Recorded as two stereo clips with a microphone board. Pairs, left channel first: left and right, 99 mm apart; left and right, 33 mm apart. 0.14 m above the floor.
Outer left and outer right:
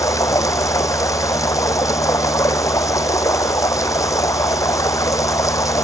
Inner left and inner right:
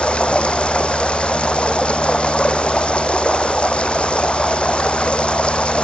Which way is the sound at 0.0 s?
30° left (ahead or behind).